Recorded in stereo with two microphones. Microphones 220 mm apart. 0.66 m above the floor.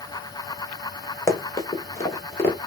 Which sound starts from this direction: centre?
Running footsteps, at 1.3 s.